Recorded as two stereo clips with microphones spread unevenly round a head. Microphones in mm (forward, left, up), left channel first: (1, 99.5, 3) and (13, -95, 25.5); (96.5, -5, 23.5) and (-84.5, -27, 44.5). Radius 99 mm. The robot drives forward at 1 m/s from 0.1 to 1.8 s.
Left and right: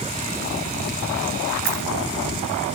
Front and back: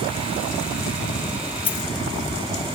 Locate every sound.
1.6 s a dropped coin: 55° right, 3.5 m